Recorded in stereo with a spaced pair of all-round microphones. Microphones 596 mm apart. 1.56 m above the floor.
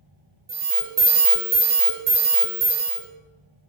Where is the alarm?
45° right (ahead or behind), 0.5 m.